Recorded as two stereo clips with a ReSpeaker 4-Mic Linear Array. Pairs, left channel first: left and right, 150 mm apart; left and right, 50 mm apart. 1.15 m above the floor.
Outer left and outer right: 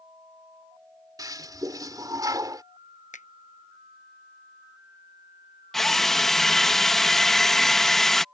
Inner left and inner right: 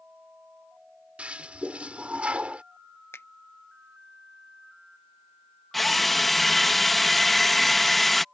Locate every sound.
1.2 s a toilet flushing: 25° right (ahead or behind)
3.1 s a finger snap: 55° left (ahead or behind)
5.7 s a drill: centre (ahead or behind)